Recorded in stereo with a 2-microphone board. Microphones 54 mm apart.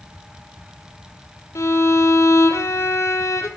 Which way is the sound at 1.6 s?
75° left (ahead or behind).